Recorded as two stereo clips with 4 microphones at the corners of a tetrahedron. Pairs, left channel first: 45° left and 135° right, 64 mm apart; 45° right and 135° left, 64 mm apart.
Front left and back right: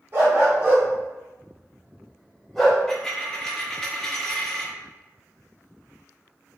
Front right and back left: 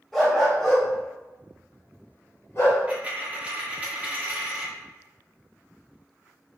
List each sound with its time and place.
0.1 s a dog barking: 135° right, 1.4 m; by 2.8 s 35° right, 1.3 m
2.9 s a dropped coin: 115° left, 0.8 m